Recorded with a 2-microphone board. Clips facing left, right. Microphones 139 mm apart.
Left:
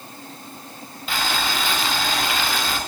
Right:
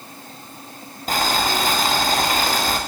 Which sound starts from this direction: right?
Boiling, at 1.1 s.